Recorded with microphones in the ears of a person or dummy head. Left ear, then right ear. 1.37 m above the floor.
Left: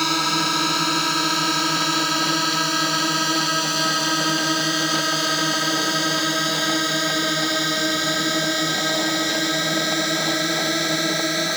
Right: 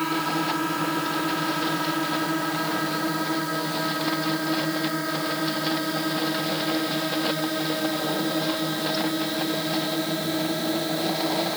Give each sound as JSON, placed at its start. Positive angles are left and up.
{"t": 0.0, "sound": "a drone", "side_deg": 85}